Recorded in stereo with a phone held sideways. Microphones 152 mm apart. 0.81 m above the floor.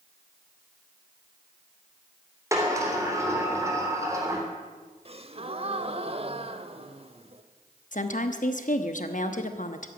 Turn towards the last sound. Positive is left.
turn(degrees=55)  # may be behind; listen again after turning